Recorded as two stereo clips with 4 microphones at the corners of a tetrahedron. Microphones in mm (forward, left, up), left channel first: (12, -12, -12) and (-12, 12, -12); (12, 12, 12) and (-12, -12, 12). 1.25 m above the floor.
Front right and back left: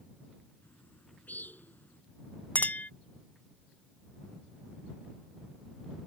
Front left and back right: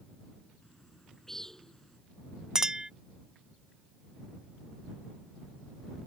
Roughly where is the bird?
Ahead right.